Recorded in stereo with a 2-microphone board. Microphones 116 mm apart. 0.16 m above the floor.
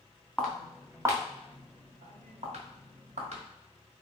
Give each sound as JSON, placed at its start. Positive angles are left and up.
{"t": 0.4, "sound": "footsteps", "side_deg": 5, "distance_m": 0.9}